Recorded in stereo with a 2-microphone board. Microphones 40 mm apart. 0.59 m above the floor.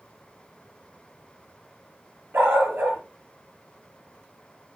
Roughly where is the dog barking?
Right.